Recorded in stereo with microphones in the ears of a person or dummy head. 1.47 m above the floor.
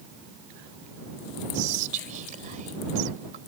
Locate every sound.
1.5 s whispering: 35° right (ahead or behind)